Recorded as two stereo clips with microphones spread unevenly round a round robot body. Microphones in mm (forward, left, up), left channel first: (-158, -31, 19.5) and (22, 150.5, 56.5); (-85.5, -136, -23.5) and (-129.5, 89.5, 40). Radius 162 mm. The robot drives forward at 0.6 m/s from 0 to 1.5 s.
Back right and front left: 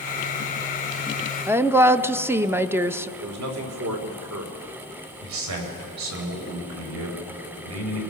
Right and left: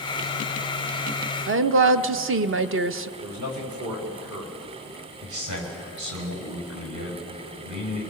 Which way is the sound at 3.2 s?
60° left.